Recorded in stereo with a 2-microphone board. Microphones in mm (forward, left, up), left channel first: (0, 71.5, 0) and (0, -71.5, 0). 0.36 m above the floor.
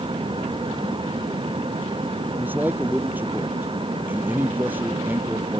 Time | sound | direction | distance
2.2 | a man speaking | 10° right (ahead or behind) | ?